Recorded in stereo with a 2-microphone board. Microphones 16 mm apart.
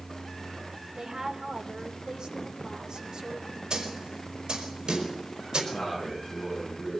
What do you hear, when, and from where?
0.9 s a woman speaking: 45° right (ahead or behind), 3.5 m
3.7 s a snare drum: 55° right (ahead or behind), 5 m
5.7 s a man speaking: 25° left (ahead or behind), 9 m